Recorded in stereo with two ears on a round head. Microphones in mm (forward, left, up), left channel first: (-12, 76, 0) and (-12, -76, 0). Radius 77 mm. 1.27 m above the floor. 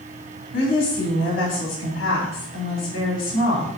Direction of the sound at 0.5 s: 80° left.